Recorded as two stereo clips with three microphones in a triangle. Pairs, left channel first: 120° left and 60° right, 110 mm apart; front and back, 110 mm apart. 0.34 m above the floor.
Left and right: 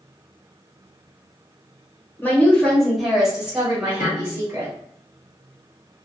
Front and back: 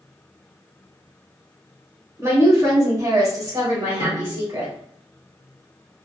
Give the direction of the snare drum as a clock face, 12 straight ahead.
1 o'clock.